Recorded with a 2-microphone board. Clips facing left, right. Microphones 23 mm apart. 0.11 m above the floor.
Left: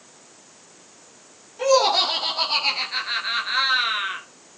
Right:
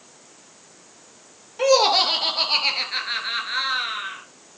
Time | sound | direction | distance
1.6 | laughter | 30° right (ahead or behind) | 2.5 m